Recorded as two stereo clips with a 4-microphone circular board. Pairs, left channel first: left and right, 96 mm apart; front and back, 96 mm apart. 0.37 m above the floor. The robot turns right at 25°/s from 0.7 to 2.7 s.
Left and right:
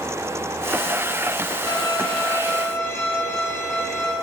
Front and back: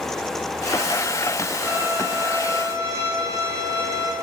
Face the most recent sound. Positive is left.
turn(degrees=140)